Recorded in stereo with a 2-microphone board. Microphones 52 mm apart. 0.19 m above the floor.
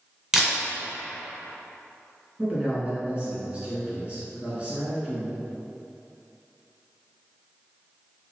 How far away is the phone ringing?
I don't hear a phone ringing.